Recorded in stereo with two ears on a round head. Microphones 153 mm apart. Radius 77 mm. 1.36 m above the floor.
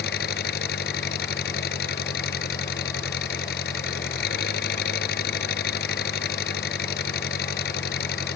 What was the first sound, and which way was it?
An engine running, 65° left (ahead or behind).